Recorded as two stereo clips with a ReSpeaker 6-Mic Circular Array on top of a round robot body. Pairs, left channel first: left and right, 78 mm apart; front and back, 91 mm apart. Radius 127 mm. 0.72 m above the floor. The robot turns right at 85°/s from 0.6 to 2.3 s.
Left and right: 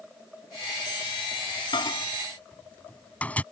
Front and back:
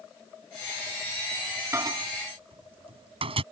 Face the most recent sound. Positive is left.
turn(degrees=165)